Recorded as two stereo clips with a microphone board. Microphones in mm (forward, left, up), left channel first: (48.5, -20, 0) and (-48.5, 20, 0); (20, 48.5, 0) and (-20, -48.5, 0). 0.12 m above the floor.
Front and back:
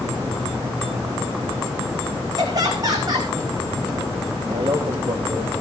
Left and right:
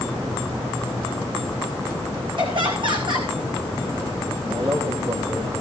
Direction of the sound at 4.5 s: 165° right.